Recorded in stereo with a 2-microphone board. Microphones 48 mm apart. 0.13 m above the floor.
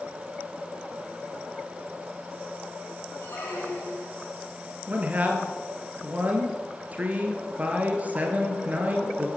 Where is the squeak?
65° left (ahead or behind), 8 m.